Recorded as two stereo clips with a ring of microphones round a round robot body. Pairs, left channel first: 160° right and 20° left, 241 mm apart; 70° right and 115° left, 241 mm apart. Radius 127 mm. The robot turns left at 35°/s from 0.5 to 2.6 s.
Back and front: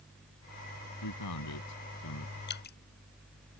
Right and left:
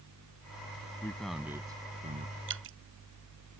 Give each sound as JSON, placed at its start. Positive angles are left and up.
{"t": 1.0, "sound": "a man speaking", "azimuth_deg": -145}
{"t": 2.5, "sound": "dripping", "azimuth_deg": 155}